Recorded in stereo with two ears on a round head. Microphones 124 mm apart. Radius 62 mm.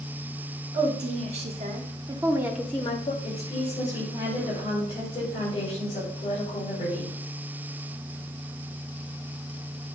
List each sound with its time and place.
0.7 s a woman speaking: 55° right (ahead or behind), 2.5 m; by 3.1 s 40° left (ahead or behind), 0.8 m
3.2 s a woman speaking: 40° left (ahead or behind), 5 m